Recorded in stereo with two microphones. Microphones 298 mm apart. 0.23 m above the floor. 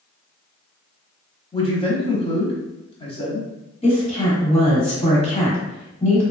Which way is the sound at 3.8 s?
20° left (ahead or behind).